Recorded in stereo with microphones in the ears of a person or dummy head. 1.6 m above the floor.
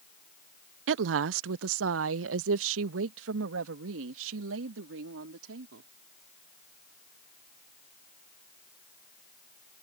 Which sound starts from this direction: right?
A woman speaking, at 0.9 s.